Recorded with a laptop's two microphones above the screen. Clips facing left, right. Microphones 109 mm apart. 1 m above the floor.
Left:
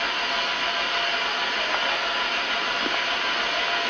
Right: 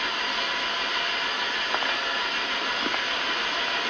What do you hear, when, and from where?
0.0 s an engine running: 65° left (ahead or behind), 5 m